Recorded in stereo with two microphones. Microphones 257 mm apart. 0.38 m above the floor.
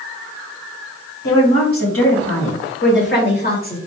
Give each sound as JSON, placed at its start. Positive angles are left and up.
{"t": 1.2, "sound": "a woman speaking", "side_deg": 60, "distance_m": 2.5}